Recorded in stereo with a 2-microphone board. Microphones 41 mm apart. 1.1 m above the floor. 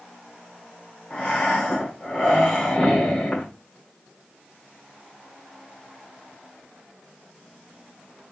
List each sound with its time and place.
1.1 s breathing: 30° left (ahead or behind), 2.5 m